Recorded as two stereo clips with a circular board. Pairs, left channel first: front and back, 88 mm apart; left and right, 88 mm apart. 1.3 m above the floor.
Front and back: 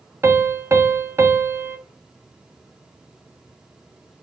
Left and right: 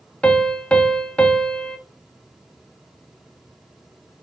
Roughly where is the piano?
Behind left.